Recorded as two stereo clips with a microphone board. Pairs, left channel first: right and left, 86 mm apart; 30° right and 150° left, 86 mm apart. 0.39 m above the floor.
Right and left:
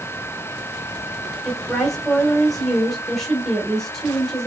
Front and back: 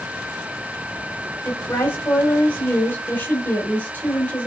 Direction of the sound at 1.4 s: 15° right.